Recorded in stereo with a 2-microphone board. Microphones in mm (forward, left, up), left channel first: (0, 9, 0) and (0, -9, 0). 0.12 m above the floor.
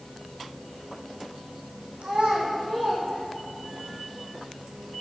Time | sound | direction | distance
2.0 | a child speaking | 70° right (ahead or behind) | 3.5 m